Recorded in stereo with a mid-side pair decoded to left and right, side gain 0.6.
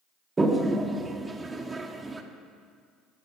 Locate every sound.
0.4 s a toilet flushing: 20° right, 0.8 m